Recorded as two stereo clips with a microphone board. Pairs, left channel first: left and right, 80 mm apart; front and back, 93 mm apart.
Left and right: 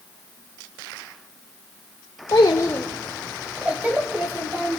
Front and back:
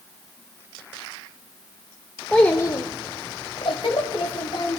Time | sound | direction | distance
2.3 | a child speaking | 80° left | 0.6 m